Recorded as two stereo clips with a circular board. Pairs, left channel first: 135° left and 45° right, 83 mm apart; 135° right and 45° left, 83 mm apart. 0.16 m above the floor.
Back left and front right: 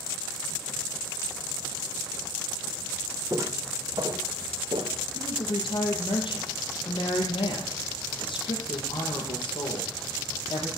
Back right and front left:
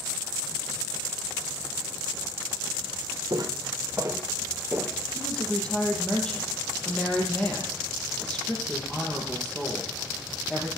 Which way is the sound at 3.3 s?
5° left.